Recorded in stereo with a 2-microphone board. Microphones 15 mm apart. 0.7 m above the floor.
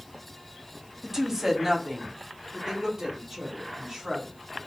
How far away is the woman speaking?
About 0.9 m.